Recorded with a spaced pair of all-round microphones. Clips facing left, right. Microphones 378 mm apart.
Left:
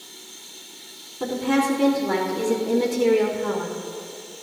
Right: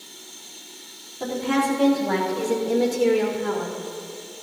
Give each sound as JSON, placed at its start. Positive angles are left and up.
{"t": 1.2, "sound": "a woman speaking", "side_deg": 20, "distance_m": 4.0}